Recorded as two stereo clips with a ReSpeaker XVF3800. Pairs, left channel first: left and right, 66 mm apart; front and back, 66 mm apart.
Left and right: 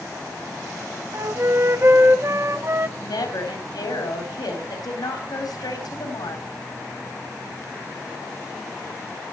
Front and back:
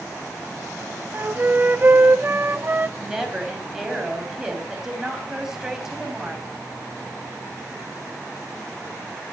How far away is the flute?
About 0.6 m.